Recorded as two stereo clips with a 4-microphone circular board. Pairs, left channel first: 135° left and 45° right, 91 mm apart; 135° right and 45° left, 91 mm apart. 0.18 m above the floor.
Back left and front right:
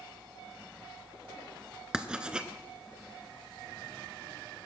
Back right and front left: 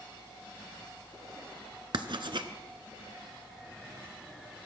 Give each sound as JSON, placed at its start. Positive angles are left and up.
{"t": 1.9, "sound": "writing", "azimuth_deg": 35, "distance_m": 0.8}